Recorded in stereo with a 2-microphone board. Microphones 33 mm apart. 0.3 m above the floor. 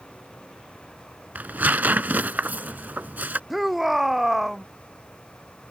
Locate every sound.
1.4 s tearing paper: 65° right (ahead or behind)
3.5 s a shout: 5° right (ahead or behind)